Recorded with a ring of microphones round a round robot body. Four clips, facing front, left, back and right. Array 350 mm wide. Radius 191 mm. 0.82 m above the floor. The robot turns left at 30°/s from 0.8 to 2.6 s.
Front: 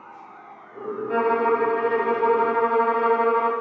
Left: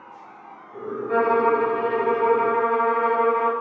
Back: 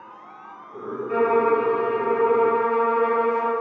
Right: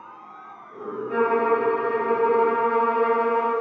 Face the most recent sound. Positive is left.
turn(degrees=30)